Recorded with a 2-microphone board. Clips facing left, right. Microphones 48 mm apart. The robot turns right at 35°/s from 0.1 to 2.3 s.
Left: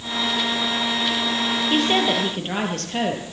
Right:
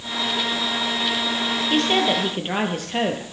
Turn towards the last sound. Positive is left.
turn(degrees=-10)  # may be behind; listen again after turning